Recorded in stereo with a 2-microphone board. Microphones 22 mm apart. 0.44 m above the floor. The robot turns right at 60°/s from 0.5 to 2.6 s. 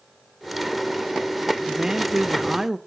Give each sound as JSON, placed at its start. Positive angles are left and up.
{"t": 1.7, "sound": "a woman speaking", "side_deg": -25, "distance_m": 0.8}